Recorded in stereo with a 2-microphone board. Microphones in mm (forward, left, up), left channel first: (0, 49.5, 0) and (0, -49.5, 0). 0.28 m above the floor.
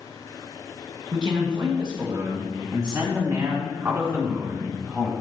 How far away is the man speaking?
About 3.5 m.